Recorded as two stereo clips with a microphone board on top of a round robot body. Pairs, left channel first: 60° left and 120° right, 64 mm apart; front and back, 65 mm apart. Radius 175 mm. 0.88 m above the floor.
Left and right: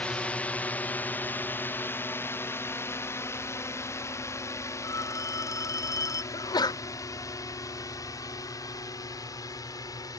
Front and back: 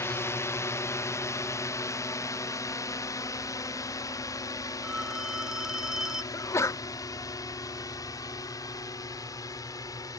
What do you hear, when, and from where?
0.0 s a drone: 5° right; by 10.2 s 30° left
4.8 s a phone ringing: 100° left
6.3 s a sneeze: 45° left